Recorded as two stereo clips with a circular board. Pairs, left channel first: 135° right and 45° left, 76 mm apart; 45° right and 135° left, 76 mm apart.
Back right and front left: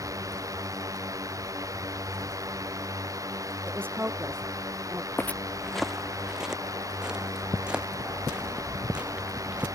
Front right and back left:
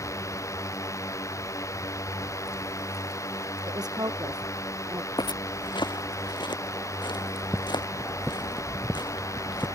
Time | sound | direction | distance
0.0 | a drone | straight ahead | ?
3.7 | a woman speaking | 105° left | ?
5.2 | footsteps | 70° right | ?